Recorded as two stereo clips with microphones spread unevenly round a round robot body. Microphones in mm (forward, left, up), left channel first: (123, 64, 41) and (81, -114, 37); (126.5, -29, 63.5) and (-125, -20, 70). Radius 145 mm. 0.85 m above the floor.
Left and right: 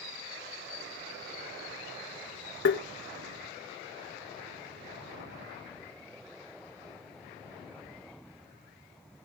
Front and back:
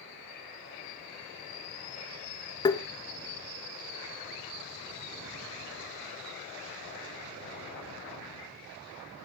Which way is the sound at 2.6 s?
70° left.